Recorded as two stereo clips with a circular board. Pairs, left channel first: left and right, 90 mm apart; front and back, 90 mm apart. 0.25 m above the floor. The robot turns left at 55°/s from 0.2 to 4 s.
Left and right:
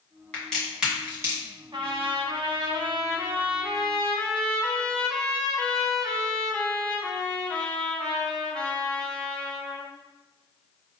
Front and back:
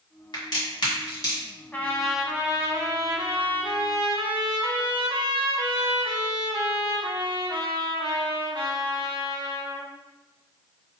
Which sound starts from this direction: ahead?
A crack, at 0.3 s.